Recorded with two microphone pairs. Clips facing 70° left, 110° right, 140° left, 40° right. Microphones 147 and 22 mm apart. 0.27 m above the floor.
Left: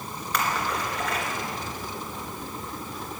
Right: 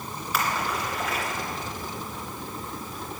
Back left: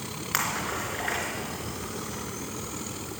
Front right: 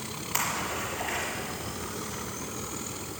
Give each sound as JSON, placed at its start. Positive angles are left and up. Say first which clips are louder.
{"t": 0.3, "sound": "a splash", "louder": "even, back left 1 dB", "azimuth_deg": 160, "distance_m": 3.0}